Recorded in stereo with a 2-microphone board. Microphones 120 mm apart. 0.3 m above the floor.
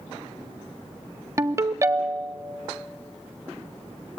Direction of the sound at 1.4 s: 25° right (ahead or behind).